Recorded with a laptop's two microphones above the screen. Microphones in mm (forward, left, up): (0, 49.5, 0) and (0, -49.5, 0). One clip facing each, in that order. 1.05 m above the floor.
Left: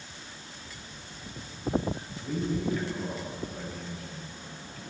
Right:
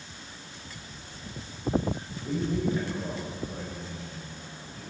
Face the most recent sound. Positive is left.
turn(degrees=-25)  # may be behind; listen again after turning